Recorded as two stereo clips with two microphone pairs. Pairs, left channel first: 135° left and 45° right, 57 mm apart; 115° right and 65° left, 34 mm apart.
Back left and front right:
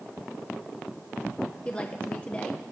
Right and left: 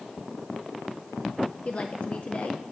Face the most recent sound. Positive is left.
turn(degrees=-155)